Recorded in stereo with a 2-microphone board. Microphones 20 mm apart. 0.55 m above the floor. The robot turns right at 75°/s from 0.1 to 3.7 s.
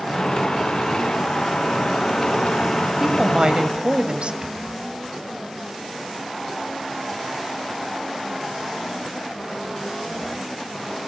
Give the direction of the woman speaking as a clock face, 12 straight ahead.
6 o'clock.